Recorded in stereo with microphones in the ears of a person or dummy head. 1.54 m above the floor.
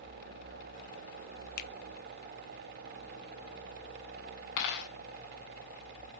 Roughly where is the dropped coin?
Left.